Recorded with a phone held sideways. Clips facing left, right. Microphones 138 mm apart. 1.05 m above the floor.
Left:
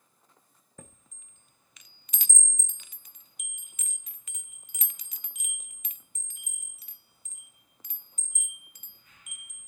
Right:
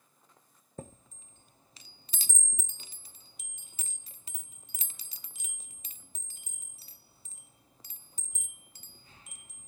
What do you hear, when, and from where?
0.8 s a chime: 30° right (ahead or behind), 0.5 m